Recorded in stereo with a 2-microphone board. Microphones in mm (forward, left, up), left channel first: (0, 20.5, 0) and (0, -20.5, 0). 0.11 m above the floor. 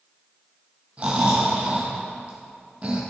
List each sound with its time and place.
1.0 s snoring: 35° right (ahead or behind), 2.5 m